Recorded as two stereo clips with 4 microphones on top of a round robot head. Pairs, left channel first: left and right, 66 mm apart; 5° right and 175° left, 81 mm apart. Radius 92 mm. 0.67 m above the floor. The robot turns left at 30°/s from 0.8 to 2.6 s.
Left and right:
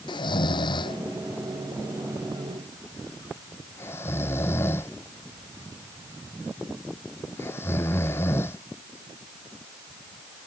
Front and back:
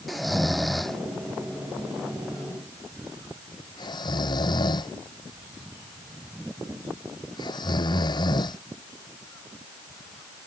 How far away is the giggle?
No giggle in this recording.